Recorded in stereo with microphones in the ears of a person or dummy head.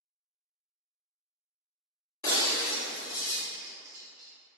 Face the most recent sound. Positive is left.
turn(degrees=-35)  # may be behind; listen again after turning